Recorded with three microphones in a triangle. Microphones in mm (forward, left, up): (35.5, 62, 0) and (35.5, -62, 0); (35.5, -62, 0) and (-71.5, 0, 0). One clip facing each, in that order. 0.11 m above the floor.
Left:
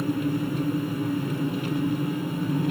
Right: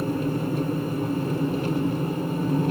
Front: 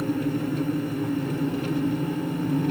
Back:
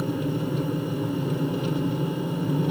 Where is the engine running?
135° right, 2.5 m.